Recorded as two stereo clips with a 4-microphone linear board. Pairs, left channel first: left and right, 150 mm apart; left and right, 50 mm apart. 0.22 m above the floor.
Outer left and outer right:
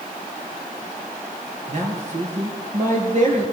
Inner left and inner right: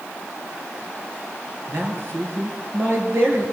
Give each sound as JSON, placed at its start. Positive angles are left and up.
{"t": 1.7, "sound": "a man speaking", "side_deg": -55, "distance_m": 4.5}